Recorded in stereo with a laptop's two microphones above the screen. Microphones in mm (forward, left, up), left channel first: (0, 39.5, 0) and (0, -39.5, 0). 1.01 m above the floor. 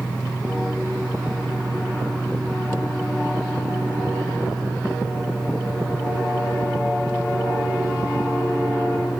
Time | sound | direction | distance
0.0 | a fan | 5° left (ahead or behind) | 2 m